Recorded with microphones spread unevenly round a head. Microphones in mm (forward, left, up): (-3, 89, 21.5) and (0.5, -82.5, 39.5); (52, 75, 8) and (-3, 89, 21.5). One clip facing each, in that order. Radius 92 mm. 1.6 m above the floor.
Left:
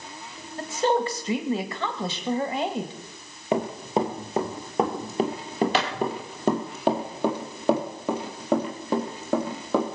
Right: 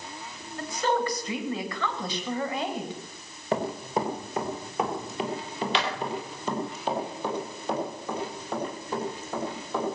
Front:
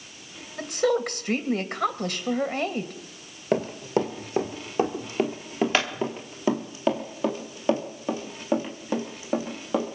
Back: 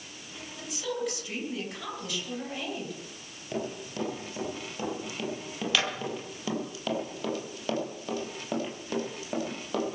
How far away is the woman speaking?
About 2 m.